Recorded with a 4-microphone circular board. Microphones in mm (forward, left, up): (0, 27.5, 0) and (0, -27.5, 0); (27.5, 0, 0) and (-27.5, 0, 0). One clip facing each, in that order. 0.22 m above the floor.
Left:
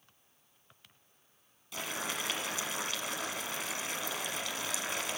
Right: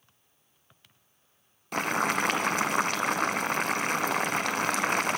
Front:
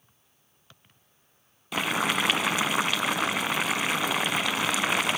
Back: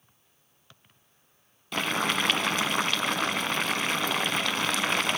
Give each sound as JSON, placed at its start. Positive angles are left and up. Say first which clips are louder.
{"t": 1.7, "sound": "boiling", "louder": "right 11 dB, front 1 dB", "azimuth_deg": -80, "distance_m": 0.7}